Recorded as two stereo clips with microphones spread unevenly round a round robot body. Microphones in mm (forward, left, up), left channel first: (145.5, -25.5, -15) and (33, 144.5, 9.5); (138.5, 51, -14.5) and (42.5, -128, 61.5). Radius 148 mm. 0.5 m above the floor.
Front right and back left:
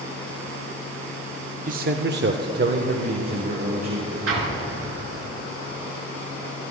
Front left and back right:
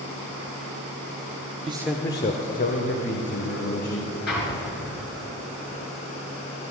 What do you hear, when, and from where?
1.7 s a man speaking: 165° left, 0.8 m; by 4.2 s 75° left, 3 m
4.3 s an explosion: 110° left, 3.5 m